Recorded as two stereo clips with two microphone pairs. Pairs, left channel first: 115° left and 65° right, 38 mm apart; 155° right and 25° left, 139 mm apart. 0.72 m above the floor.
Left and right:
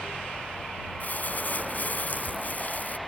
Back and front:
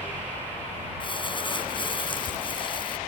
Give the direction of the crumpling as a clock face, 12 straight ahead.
7 o'clock.